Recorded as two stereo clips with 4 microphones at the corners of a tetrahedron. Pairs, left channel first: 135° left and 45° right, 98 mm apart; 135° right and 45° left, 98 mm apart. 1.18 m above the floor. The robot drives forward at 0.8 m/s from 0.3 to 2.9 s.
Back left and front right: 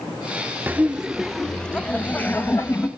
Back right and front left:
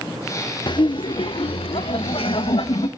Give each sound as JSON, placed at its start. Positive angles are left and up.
{"t": 0.7, "sound": "laughter", "azimuth_deg": -110, "distance_m": 1.0}